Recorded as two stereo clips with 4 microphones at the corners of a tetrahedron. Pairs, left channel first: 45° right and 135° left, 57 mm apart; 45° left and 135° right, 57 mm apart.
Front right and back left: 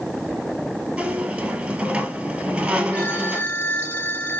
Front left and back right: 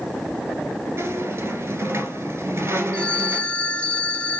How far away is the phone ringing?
About 1.1 m.